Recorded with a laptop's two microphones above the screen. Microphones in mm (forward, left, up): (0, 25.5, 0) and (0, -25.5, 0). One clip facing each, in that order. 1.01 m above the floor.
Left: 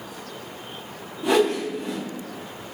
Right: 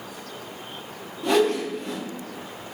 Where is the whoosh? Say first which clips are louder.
Even; 10° left (ahead or behind), 1.0 m.